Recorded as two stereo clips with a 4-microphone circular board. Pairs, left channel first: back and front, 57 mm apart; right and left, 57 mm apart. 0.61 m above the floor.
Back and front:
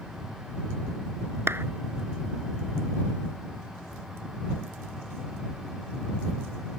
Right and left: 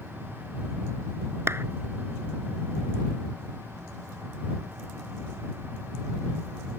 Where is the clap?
45° left.